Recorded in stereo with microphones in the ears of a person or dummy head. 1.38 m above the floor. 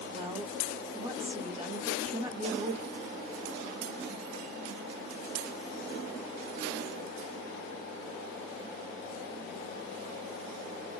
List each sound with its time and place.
0.1 s a woman speaking: 35° right (ahead or behind), 1.1 m